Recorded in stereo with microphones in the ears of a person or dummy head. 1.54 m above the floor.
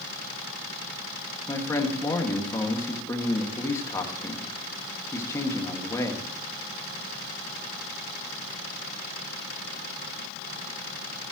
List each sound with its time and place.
1.5 s a man speaking: 15° left (ahead or behind), 2 m